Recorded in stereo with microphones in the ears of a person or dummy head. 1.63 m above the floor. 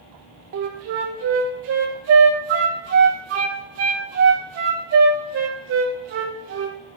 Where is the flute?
45° right (ahead or behind), 0.9 m.